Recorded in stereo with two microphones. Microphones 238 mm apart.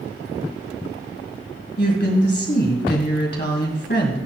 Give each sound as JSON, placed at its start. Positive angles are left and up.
{"t": 1.8, "sound": "a woman speaking", "side_deg": 45, "distance_m": 2.0}